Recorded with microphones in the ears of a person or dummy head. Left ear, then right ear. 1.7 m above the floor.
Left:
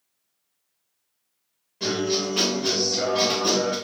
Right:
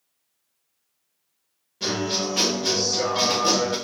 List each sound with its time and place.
1.8 s a guitar: 20° left (ahead or behind), 1.7 m